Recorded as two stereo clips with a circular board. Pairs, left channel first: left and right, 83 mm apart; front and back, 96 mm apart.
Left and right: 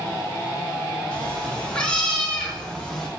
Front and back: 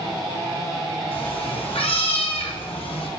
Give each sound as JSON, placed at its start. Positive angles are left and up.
{"t": 1.1, "sound": "a cat meowing", "azimuth_deg": 10, "distance_m": 5.5}